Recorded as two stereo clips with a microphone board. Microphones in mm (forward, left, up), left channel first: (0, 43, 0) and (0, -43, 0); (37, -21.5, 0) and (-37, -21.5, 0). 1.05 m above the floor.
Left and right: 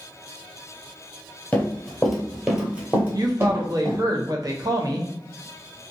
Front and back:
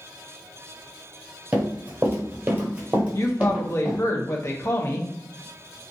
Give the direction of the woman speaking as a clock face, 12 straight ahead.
2 o'clock.